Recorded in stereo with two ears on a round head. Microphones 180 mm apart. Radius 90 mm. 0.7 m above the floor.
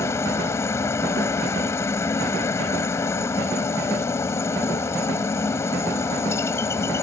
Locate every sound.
0.0 s a helicopter: 15° left (ahead or behind)